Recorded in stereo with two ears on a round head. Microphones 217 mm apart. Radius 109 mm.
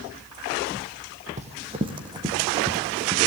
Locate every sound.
1.4 s running footsteps: 30° right (ahead or behind), 2.0 m; by 3.2 s 10° right (ahead or behind), 4.5 m